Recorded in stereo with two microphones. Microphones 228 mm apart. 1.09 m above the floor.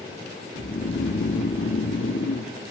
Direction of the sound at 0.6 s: 60° left (ahead or behind).